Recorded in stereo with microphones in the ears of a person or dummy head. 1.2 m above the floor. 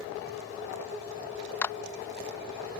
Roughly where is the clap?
Centre.